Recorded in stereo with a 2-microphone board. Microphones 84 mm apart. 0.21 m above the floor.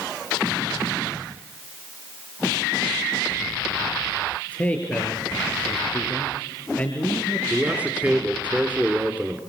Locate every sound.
4.5 s a man speaking: 15° left (ahead or behind), 3.5 m
7.5 s a man speaking: 15° right (ahead or behind), 2.5 m